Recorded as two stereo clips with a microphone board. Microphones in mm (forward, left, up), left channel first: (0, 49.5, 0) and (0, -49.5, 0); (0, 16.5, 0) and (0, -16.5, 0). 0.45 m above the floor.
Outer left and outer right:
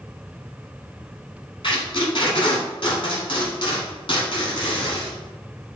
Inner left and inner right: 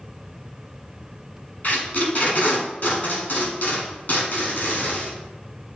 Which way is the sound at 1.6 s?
55° left (ahead or behind).